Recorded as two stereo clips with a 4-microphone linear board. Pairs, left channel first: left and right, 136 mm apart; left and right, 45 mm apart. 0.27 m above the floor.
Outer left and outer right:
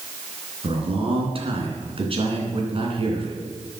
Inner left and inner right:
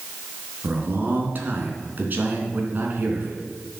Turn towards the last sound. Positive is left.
turn(degrees=-45)  # may be behind; listen again after turning